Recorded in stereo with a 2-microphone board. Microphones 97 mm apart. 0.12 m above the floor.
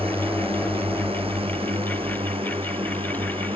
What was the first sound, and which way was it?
A drone, 75° right (ahead or behind).